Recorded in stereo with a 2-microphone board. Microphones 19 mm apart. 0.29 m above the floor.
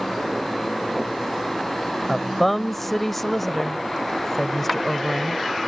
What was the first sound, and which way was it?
A woman speaking, 10° left (ahead or behind).